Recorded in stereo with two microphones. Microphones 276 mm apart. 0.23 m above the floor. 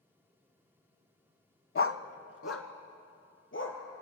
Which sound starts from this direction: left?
A dog barking, at 1.8 s.